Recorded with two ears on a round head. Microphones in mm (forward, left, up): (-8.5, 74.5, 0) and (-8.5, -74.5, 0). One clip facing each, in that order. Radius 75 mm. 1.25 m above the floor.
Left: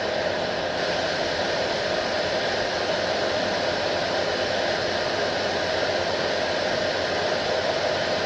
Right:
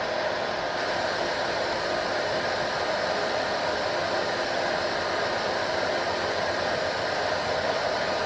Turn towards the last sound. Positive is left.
No sound to turn to.